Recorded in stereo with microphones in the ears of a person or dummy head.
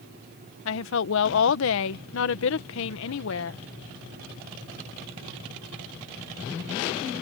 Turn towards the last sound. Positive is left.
turn(degrees=65)  # may be behind; listen again after turning